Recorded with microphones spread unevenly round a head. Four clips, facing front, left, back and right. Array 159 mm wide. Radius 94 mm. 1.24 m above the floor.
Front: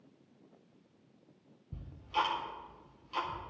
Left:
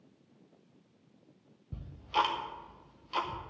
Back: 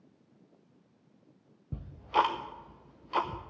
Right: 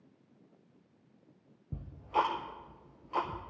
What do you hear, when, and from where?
1.7 s ticking: 160° right, 0.6 m